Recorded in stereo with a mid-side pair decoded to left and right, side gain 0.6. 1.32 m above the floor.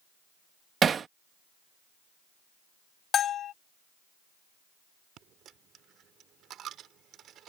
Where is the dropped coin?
55° right.